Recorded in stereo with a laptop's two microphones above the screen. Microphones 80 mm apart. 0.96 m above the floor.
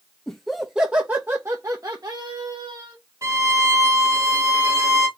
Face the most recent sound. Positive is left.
turn(degrees=-40)  # may be behind; listen again after turning